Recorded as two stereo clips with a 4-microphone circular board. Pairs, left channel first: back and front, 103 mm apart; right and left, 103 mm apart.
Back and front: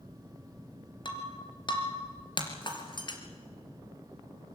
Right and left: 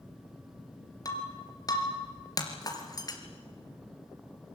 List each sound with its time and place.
1.1 s breaking glass: 140° right, 3 m